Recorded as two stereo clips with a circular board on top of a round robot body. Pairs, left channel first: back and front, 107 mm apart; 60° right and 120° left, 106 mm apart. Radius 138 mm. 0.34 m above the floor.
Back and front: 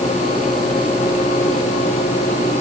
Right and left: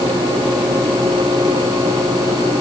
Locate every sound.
Only background noise.